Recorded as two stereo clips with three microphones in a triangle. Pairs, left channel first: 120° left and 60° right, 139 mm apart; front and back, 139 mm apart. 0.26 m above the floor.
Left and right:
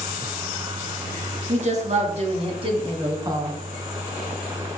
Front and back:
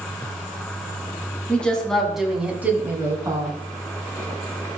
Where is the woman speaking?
80° right, 2.5 m; by 3.6 s 120° right, 2.5 m.